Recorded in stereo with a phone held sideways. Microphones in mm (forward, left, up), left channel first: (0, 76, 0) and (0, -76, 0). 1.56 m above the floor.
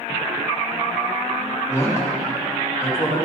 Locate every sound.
1.7 s a man speaking: 20° left (ahead or behind), 3 m